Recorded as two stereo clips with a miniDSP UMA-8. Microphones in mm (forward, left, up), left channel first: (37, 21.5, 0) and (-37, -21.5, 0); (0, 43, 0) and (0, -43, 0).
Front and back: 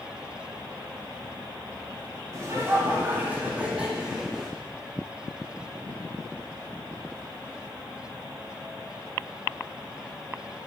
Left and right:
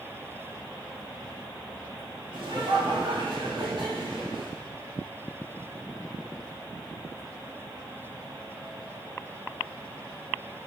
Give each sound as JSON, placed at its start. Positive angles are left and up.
{"t": 2.3, "sound": "laughter", "azimuth_deg": -100, "distance_m": 2.5}